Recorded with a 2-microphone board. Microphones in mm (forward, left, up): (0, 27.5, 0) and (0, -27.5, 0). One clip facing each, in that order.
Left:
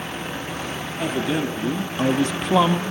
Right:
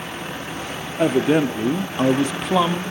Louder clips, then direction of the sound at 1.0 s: Right 7 dB; 50° right (ahead or behind).